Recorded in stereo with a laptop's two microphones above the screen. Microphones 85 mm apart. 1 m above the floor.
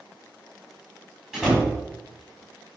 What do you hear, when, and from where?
1.3 s a door slam: 10° right (ahead or behind), 5 m